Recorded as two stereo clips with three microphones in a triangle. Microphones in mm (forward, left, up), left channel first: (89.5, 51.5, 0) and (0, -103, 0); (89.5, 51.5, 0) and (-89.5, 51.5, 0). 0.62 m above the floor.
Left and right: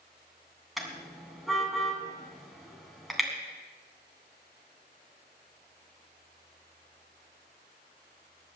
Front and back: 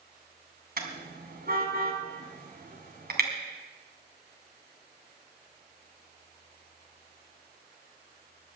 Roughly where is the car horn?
Behind left.